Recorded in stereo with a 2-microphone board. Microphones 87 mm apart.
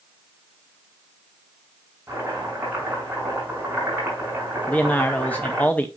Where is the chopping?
25° right (ahead or behind), 6.5 m.